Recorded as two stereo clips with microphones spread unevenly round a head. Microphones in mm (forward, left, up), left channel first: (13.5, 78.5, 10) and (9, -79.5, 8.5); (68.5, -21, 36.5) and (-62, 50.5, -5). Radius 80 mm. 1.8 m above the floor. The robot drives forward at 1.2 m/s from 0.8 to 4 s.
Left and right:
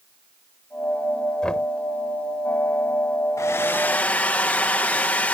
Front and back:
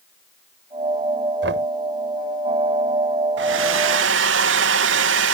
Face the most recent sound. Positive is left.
turn(degrees=170)